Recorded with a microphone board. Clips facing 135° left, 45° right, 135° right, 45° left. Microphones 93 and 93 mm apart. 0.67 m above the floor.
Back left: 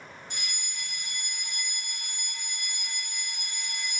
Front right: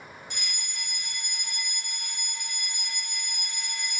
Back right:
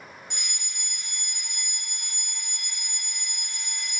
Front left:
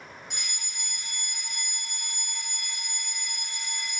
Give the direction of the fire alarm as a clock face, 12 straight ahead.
8 o'clock.